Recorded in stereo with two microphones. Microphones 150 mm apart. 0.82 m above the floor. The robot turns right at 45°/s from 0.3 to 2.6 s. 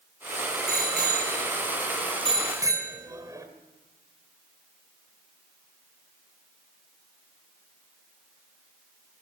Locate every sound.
0.7 s a bicycle bell: 70° right (ahead or behind), 2.5 m; by 3.5 s 20° right (ahead or behind), 2.5 m